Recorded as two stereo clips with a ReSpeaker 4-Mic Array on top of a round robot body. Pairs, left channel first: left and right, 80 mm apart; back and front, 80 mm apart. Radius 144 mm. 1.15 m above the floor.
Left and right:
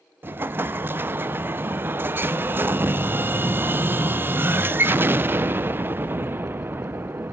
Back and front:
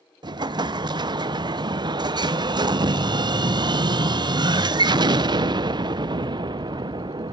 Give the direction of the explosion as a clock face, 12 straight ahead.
1 o'clock.